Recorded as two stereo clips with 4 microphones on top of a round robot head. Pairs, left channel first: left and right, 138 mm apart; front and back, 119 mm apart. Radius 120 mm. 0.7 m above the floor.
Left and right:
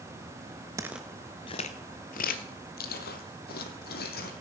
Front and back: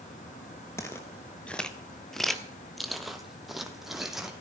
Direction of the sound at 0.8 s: 50° right.